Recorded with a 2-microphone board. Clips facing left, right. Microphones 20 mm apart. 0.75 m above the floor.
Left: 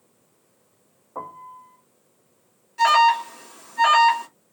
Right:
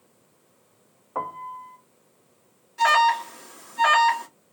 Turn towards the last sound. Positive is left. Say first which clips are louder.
# left 2 dB
turn(degrees=10)  # may be behind; listen again after turning